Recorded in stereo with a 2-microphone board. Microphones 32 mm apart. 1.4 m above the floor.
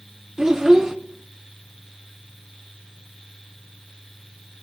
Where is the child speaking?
15° right (ahead or behind), 0.9 m.